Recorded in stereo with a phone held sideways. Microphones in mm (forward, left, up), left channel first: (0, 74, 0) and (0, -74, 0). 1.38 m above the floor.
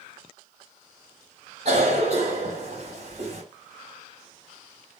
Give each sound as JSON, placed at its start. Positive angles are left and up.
{"t": 1.6, "sound": "a cough", "side_deg": -65, "distance_m": 2.5}